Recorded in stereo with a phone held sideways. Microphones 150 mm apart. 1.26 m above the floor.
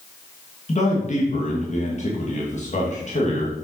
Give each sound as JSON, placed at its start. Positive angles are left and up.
{"t": 0.7, "sound": "a man speaking", "side_deg": 45, "distance_m": 1.5}